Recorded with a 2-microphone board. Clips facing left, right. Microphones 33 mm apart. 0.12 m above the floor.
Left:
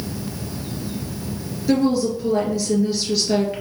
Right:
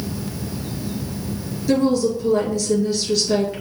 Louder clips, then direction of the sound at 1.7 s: Right 1 dB; 10° left (ahead or behind).